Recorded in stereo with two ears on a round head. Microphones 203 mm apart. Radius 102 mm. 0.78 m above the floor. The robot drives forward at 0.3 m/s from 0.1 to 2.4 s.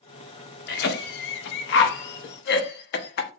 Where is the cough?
45° left (ahead or behind), 0.7 m; by 3.3 s 50° left (ahead or behind), 0.6 m.